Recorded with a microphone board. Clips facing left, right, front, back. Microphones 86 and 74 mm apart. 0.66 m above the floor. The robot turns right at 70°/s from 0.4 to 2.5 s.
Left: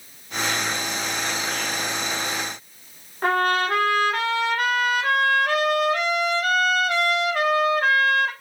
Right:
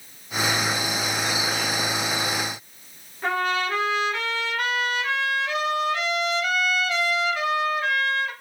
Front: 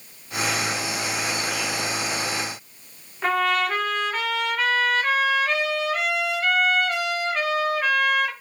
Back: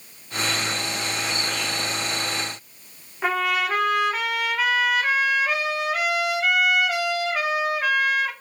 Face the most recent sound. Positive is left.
turn(degrees=100)